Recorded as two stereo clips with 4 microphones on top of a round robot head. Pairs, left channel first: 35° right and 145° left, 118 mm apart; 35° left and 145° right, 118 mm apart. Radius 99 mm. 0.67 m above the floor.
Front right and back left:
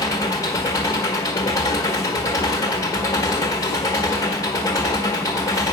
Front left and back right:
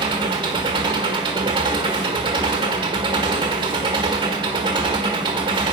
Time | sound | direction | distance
0.0 | an engine running | 95° right | 1.5 m